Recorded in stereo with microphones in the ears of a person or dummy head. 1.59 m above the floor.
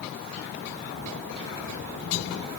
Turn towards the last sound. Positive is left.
No sound to turn to.